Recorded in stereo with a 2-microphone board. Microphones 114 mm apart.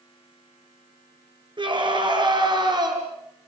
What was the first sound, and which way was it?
A scream, 45° right (ahead or behind).